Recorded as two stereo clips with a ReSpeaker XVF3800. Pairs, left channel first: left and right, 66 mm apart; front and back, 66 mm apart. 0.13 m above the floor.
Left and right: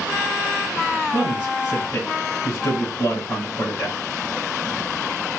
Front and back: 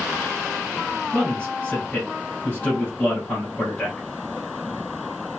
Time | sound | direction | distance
1.1 | a man speaking | 65° left | 2 m